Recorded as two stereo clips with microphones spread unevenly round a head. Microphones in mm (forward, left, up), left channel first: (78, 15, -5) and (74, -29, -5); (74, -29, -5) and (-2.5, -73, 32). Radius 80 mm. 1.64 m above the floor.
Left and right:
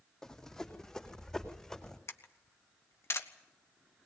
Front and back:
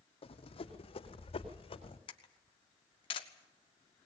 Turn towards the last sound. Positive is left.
turn(degrees=70)